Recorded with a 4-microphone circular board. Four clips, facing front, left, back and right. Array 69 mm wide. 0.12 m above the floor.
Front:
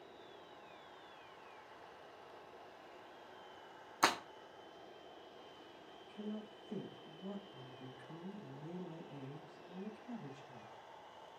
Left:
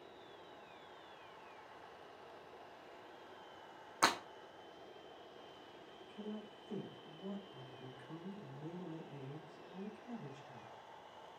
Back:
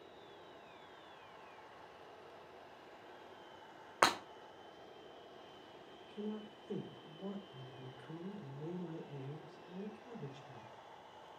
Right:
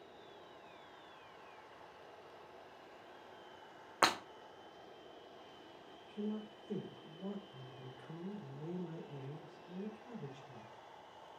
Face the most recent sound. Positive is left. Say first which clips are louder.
# right 6 dB, back 2 dB
turn(degrees=-145)